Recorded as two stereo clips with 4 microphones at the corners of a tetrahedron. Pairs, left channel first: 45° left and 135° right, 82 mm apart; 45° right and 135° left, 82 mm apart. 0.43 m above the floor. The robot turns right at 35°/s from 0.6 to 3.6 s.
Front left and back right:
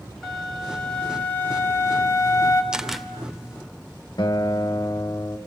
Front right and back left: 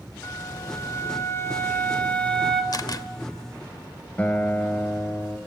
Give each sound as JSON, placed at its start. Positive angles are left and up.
{"t": 0.2, "sound": "a flute", "azimuth_deg": -40, "distance_m": 1.7}
{"t": 2.7, "sound": "a camera shutter", "azimuth_deg": -55, "distance_m": 0.7}
{"t": 4.2, "sound": "a guitar", "azimuth_deg": 25, "distance_m": 1.4}